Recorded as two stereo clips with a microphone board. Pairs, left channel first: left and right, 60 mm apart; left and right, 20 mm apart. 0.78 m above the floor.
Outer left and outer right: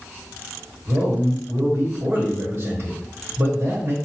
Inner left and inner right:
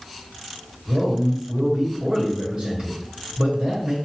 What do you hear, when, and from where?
0.9 s a man speaking: 50° right (ahead or behind), 1.3 m